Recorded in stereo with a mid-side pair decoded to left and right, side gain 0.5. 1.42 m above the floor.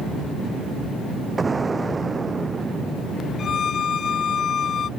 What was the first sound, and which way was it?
An explosion, 20° right.